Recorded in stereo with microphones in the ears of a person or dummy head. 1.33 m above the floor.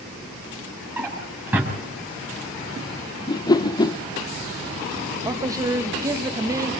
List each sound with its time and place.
1.0 s a drawer: 10° right (ahead or behind), 6 m
3.3 s a whoosh: 20° left (ahead or behind), 0.7 m
5.2 s a man speaking: 20° right (ahead or behind), 1.7 m